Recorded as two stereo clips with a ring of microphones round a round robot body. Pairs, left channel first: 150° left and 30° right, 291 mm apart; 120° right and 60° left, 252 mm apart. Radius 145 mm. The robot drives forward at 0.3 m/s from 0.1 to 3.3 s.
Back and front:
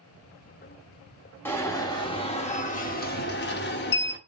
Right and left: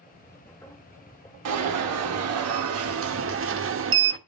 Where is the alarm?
65° left, 1.2 m; by 4.2 s 95° left, 1.1 m.